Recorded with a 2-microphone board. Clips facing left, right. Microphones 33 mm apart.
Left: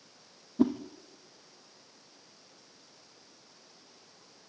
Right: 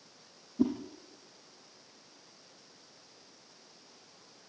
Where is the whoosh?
85° left, 3 m.